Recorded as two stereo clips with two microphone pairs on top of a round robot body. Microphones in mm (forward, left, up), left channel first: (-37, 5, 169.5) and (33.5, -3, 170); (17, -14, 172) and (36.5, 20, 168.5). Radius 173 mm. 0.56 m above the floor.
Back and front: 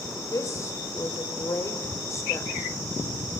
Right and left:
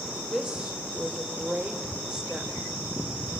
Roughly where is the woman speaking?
Behind left.